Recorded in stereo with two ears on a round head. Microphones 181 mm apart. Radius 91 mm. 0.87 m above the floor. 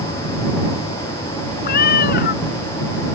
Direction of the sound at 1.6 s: 50° left (ahead or behind).